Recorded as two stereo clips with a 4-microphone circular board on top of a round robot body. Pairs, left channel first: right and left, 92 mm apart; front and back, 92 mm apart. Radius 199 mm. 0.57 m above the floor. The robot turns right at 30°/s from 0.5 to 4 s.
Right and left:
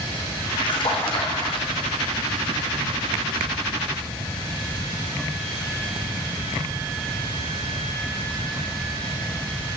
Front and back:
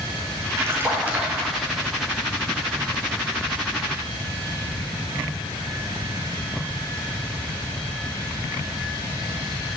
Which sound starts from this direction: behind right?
A splash, at 0.6 s.